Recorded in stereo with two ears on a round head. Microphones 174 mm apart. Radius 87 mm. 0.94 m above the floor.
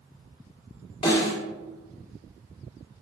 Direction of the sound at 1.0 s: 30° left (ahead or behind).